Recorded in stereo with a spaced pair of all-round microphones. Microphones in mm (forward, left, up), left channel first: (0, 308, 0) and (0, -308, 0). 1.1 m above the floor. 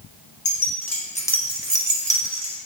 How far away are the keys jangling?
About 0.8 m.